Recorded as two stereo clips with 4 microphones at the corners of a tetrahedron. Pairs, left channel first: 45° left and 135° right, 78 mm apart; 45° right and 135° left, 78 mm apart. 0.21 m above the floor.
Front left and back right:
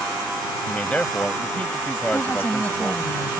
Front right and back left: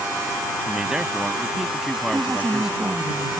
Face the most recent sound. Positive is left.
turn(degrees=80)